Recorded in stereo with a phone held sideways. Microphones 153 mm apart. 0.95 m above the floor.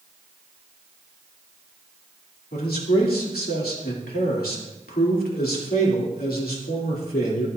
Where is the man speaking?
80° left, 2.5 m.